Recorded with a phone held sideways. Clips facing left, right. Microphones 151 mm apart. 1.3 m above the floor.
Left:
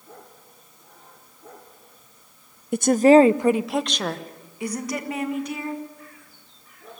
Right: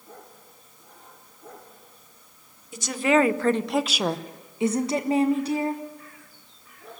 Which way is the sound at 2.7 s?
60° left (ahead or behind).